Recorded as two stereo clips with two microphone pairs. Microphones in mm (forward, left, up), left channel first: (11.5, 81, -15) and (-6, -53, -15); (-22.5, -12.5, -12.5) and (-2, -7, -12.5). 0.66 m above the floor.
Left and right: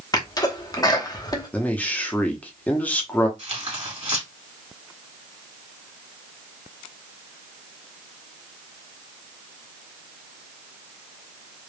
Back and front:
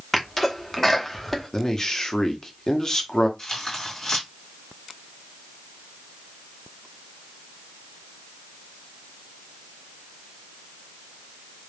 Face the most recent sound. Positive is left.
turn(degrees=-120)